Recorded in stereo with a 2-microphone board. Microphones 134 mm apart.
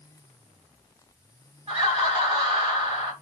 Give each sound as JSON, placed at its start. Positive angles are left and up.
{"t": 1.7, "sound": "laughter", "side_deg": -35, "distance_m": 2.0}